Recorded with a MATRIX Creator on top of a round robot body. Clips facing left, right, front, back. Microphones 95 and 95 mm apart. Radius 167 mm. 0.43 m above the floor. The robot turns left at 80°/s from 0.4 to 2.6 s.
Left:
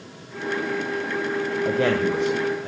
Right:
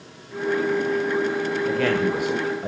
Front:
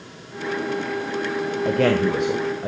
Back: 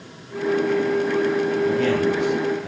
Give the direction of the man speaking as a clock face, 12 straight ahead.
11 o'clock.